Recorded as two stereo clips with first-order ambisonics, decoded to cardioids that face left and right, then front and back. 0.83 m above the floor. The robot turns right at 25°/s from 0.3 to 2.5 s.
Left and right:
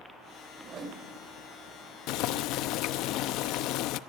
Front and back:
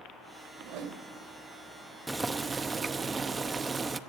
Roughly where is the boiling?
Left.